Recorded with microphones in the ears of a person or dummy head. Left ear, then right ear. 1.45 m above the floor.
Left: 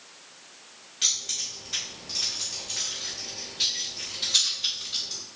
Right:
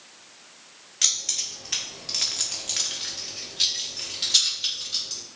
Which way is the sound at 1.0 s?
35° right (ahead or behind).